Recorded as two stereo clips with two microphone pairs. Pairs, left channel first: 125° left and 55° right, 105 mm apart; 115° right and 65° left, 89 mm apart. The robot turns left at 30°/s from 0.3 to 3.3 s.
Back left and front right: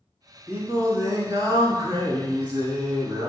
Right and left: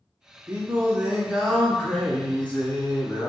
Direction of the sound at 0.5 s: 5° left.